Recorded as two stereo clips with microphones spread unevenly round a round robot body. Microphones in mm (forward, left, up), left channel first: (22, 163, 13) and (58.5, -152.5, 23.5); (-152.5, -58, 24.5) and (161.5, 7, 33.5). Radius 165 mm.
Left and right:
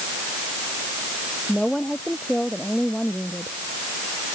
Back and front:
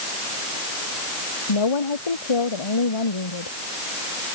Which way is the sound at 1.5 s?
175° right.